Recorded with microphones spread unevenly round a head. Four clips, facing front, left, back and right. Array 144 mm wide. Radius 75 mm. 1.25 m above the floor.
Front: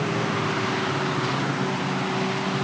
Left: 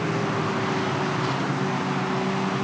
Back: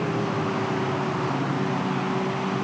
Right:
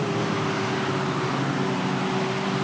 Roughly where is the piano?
No piano in this recording.